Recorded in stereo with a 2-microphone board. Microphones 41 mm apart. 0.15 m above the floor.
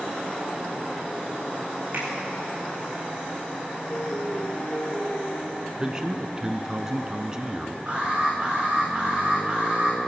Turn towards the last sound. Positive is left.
turn(degrees=-40)  # may be behind; listen again after turning